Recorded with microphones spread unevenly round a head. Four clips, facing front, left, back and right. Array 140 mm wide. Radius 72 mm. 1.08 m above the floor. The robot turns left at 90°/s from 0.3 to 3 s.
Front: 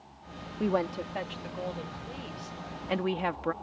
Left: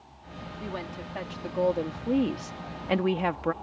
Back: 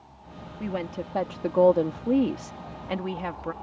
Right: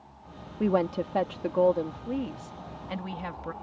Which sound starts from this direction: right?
A woman speaking, at 0.6 s.